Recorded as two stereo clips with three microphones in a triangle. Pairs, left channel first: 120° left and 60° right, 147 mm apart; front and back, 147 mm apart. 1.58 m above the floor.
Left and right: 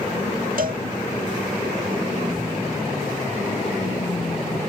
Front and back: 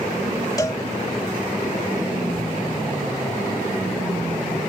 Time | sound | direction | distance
0.6 | a cowbell | 65° right | ?